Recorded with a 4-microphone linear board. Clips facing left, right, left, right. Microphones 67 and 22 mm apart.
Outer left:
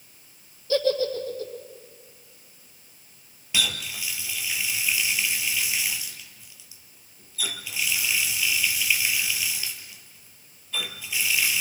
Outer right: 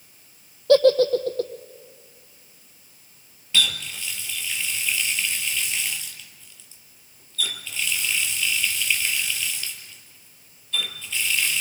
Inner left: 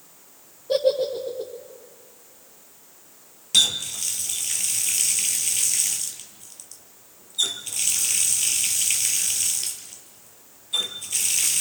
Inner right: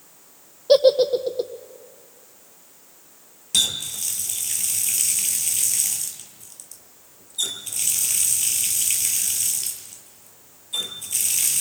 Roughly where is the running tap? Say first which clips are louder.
Outer right 3 dB, inner left 2 dB; centre.